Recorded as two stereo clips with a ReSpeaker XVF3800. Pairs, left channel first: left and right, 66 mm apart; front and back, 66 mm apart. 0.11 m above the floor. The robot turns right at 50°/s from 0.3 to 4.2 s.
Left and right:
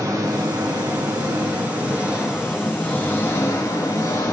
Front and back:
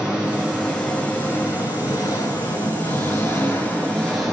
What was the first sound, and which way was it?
An engine running, 105° right.